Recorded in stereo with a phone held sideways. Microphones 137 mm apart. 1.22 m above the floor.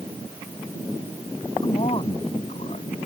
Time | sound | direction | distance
1.6 | a man speaking | 45° left (ahead or behind) | ?